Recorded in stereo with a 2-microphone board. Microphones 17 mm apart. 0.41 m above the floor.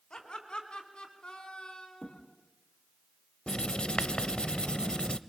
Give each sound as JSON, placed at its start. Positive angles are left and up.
{"t": 0.1, "sound": "laughter", "side_deg": 60, "distance_m": 3.5}
{"t": 2.0, "sound": "a thud", "side_deg": 60, "distance_m": 3.5}
{"t": 3.5, "sound": "writing", "side_deg": 70, "distance_m": 0.6}